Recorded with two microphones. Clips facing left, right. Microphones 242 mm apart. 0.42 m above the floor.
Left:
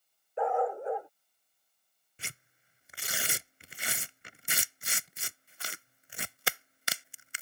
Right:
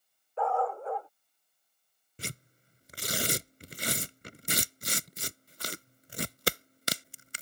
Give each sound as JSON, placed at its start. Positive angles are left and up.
{"t": 0.4, "sound": "a dog barking", "side_deg": 20}
{"t": 2.2, "sound": "tearing paper", "side_deg": -45}